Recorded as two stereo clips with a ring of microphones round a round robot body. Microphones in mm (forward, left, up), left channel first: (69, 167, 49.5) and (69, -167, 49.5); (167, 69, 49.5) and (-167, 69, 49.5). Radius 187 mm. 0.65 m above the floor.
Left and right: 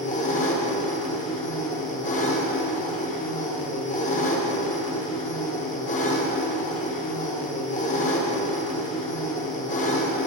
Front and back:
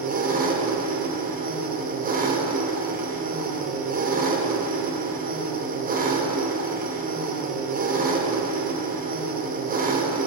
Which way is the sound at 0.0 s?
140° left.